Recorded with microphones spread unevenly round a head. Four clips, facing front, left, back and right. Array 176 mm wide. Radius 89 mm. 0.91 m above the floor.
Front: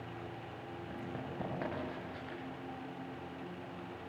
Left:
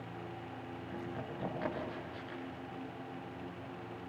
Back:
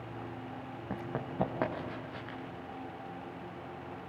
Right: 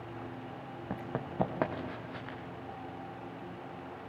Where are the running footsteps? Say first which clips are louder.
Right 5 dB, back 6 dB; 120° right, 4.5 m; by 2.4 s 110° right, 5.5 m.